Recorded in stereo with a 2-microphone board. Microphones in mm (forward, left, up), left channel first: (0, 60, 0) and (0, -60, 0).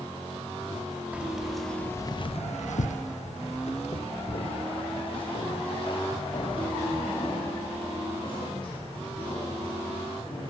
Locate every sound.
1.1 s keys jangling: 10° right (ahead or behind), 2.0 m; by 10.5 s 45° left (ahead or behind), 12.5 m